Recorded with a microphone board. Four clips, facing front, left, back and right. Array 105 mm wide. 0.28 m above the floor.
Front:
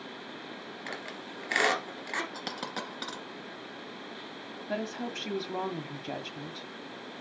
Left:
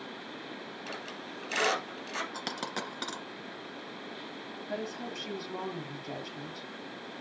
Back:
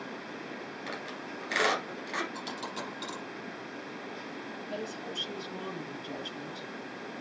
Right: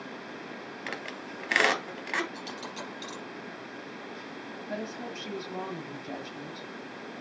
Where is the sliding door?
I don't hear a sliding door.